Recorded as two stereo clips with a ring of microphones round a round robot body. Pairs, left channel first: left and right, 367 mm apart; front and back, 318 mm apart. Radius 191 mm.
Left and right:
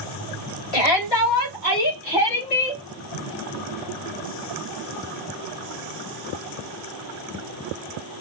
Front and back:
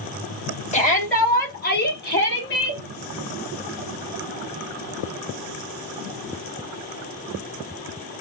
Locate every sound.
0.7 s a shout: 70° left, 3 m; by 2.8 s 50° left, 4 m